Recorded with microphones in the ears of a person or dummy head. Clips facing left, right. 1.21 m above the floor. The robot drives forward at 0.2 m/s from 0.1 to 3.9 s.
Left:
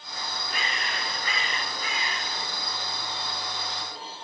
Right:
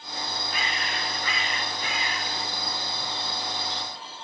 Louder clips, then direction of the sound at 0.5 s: Even; 45° left (ahead or behind).